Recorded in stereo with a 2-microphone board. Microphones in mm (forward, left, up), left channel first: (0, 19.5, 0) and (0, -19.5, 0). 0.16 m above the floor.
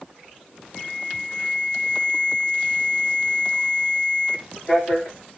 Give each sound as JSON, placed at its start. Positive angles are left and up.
{"t": 0.8, "sound": "an alarm", "side_deg": 35, "distance_m": 9.5}